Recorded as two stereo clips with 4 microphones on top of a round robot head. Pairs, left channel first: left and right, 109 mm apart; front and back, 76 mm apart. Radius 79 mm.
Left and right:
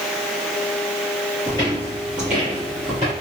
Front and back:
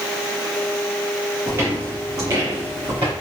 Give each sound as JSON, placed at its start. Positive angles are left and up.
{"t": 1.5, "sound": "footsteps", "azimuth_deg": 145, "distance_m": 1.5}